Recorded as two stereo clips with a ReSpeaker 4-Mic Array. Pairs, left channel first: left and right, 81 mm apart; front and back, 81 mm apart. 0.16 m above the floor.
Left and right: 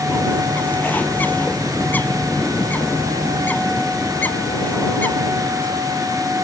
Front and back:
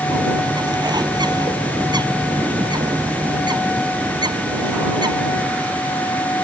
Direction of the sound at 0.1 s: 155° left.